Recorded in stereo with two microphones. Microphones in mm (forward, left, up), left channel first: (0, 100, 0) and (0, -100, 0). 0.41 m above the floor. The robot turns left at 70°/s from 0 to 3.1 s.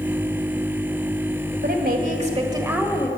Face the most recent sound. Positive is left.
turn(degrees=165)